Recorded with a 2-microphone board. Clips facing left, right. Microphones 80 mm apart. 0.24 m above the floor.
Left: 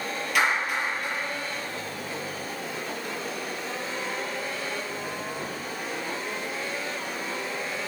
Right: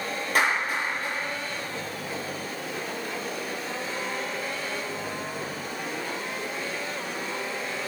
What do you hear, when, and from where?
0.3 s a clap: 40° right (ahead or behind), 6 m